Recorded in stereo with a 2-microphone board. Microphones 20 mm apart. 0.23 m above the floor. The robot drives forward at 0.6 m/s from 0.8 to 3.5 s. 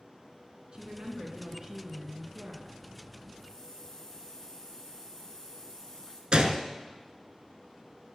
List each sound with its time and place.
0.7 s a woman speaking: 50° right (ahead or behind), 2.5 m; by 2.8 s 40° right (ahead or behind), 3.5 m
3.4 s a hiss: 20° left (ahead or behind), 2.5 m
6.3 s a gunshot: 45° right (ahead or behind), 0.9 m